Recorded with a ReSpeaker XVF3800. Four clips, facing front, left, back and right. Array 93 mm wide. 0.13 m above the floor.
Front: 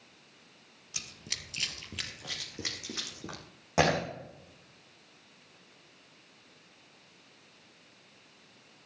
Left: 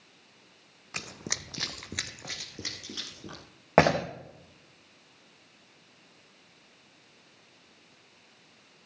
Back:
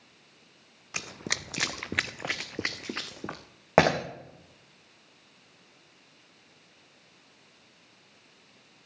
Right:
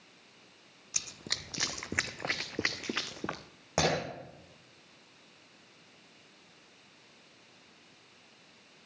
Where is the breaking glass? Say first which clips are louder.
Left 8 dB, back 5 dB; 140° left, 3.5 m.